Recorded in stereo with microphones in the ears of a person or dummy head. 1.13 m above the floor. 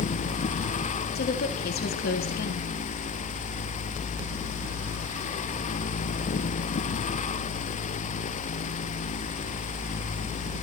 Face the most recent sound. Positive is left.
turn(degrees=50)  # may be behind; listen again after turning